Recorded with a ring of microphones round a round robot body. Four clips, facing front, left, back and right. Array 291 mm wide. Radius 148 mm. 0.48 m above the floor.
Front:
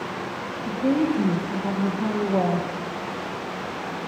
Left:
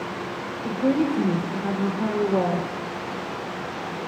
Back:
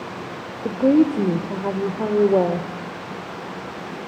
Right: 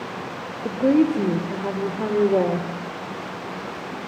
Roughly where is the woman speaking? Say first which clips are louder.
Right 4 dB, back 6 dB; behind right.